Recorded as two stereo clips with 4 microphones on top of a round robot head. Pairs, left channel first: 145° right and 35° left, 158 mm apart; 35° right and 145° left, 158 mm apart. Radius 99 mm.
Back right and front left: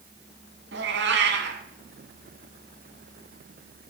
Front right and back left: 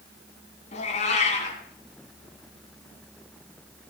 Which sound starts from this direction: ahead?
A cat meowing, at 0.7 s.